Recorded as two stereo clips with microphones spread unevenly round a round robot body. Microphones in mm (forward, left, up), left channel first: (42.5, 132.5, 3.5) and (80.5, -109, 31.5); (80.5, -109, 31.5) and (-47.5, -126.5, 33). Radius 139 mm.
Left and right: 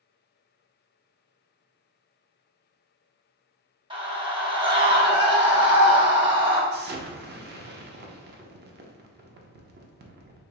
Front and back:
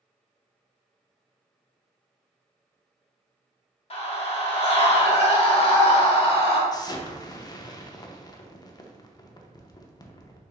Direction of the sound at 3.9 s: 10° right.